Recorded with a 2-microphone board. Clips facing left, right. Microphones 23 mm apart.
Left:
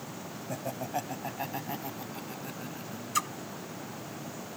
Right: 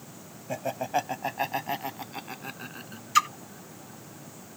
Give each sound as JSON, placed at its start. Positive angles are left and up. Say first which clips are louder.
{"t": 0.5, "sound": "laughter", "louder": "right 6 dB", "side_deg": -35}
{"t": 3.1, "sound": "a splash", "louder": "right 8 dB", "side_deg": -40}